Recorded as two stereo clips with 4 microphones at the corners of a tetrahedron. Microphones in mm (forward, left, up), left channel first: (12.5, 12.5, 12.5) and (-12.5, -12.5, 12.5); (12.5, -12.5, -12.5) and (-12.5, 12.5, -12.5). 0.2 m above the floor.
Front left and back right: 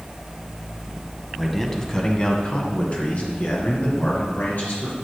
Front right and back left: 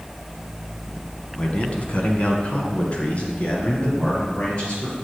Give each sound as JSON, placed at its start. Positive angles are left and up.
{"t": 1.4, "sound": "a man speaking", "azimuth_deg": -40, "distance_m": 1.3}